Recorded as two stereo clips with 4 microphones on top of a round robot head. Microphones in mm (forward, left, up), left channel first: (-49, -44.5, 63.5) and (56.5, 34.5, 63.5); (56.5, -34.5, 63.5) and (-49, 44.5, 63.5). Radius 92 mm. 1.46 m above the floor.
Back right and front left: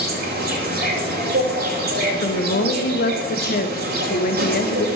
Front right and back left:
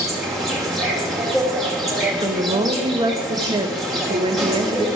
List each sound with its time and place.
0.0 s an insect: 55° left, 2.5 m
2.2 s a woman speaking: 155° right, 1.2 m